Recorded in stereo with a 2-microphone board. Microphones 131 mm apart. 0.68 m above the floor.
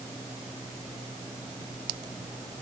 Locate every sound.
Only background noise.